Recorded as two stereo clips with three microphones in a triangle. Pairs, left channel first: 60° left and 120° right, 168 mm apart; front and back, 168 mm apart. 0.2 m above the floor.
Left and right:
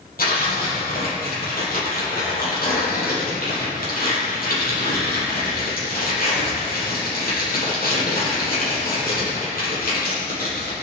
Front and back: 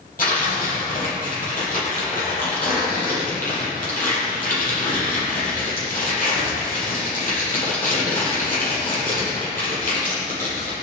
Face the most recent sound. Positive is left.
turn(degrees=35)